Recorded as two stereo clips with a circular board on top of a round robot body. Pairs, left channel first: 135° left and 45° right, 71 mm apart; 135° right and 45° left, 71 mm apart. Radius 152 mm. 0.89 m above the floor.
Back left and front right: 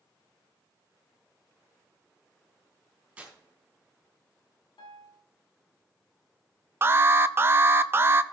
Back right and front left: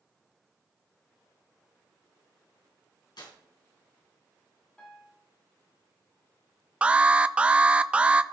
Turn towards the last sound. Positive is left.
turn(degrees=-20)